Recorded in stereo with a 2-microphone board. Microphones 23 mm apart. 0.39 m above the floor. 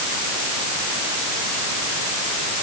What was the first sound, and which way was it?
Only background noise.